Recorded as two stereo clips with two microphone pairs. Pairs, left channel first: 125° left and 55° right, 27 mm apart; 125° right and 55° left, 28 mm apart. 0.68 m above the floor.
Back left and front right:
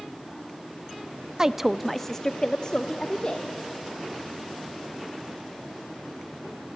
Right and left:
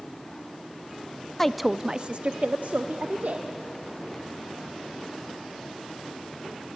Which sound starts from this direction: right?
A woman speaking, at 1.4 s.